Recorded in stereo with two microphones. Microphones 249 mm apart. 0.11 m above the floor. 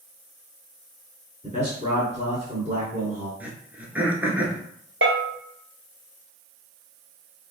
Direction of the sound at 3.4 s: 5° right (ahead or behind).